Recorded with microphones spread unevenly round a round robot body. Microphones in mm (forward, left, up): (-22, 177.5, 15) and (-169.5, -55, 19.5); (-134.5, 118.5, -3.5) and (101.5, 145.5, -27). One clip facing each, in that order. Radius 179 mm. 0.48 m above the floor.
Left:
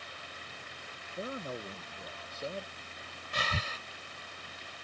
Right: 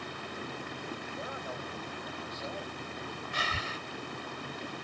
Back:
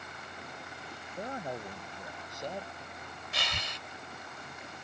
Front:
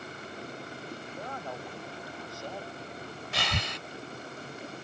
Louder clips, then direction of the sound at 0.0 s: Right 11 dB, front 7 dB; 65° right.